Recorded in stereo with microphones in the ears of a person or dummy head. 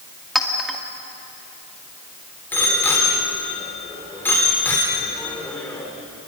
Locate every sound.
0.3 s a clink: centre (ahead or behind), 1.9 m
2.5 s a bicycle bell: 10° left (ahead or behind), 3.5 m